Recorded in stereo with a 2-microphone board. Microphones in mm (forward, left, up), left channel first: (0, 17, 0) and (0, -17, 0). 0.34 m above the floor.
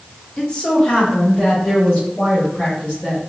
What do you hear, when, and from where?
0.4 s a woman speaking: 30° left (ahead or behind), 0.9 m